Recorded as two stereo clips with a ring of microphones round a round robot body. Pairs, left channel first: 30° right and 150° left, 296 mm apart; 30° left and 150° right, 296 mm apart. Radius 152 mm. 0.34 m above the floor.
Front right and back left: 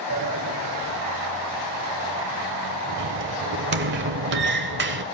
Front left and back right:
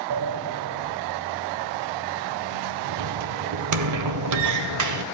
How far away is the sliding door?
About 0.9 m.